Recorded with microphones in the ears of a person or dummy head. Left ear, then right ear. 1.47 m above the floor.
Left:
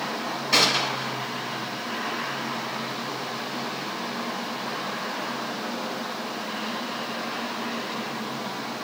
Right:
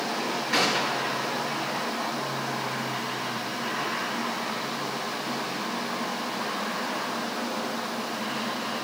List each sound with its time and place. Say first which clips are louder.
0.5 s a gunshot: left 4 dB; 35° left (ahead or behind), 2.0 m